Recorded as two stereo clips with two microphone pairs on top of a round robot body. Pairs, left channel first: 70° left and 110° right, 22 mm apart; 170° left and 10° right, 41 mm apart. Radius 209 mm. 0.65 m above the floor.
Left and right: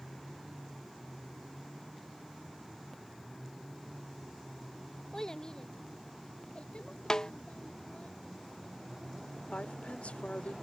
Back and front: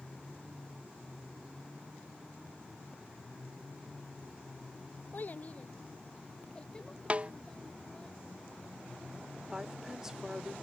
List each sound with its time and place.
5.1 s a child speaking: 130° left; by 8.1 s 95° left
7.1 s a snare drum: 20° left
9.5 s a woman speaking: 65° left